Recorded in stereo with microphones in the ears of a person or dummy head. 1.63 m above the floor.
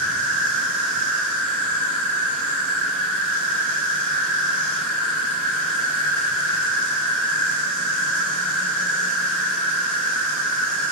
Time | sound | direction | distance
0.0 | an insect | 50° right (ahead or behind) | 1.5 m